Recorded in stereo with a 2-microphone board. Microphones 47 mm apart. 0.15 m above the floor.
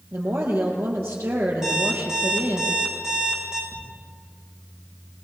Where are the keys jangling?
I don't hear keys jangling.